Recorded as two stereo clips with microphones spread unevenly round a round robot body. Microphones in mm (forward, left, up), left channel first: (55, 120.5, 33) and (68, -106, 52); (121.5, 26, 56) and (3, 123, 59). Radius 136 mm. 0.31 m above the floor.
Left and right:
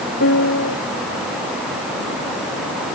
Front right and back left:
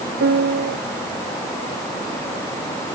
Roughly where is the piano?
Behind left.